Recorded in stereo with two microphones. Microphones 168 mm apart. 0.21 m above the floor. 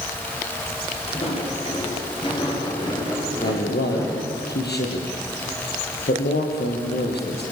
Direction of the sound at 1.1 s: 35° left (ahead or behind).